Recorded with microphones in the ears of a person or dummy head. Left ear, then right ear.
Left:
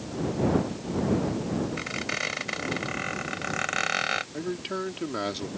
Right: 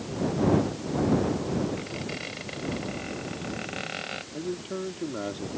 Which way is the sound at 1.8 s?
55° left (ahead or behind).